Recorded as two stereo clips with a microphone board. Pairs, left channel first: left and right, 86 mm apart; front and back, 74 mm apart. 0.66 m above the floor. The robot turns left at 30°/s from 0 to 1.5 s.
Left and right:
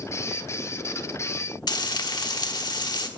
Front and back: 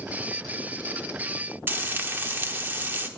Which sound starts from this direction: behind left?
Frying, at 1.7 s.